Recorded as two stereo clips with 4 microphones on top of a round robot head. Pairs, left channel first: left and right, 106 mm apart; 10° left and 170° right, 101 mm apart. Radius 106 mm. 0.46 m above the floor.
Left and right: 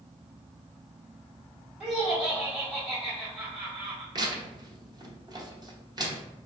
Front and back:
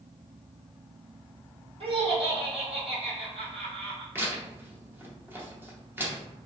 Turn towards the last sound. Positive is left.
turn(degrees=-110)